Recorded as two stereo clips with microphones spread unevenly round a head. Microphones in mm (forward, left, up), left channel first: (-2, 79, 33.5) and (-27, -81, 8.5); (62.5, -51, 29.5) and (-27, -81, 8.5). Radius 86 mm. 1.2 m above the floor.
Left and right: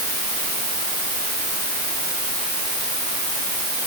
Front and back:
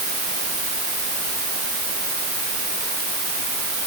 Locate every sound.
Only background noise.